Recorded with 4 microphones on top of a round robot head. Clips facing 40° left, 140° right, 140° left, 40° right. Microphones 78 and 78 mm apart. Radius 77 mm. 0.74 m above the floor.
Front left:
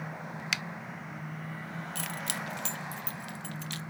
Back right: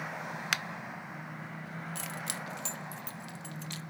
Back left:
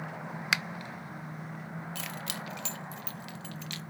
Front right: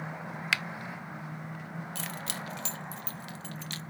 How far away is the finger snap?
About 0.5 m.